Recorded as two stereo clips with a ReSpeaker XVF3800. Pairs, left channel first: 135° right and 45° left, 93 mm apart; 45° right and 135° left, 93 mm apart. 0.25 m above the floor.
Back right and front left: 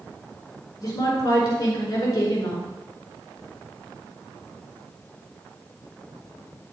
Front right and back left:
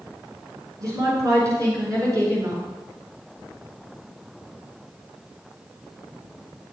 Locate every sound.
0.8 s a woman speaking: straight behind, 4 m